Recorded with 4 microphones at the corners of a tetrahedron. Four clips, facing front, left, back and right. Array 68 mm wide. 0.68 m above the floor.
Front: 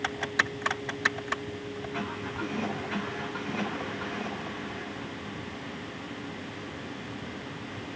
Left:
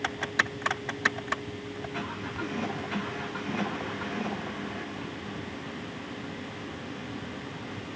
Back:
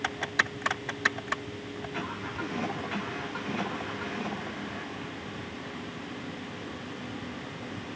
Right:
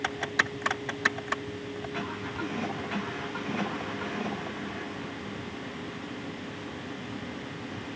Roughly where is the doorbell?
No doorbell in this recording.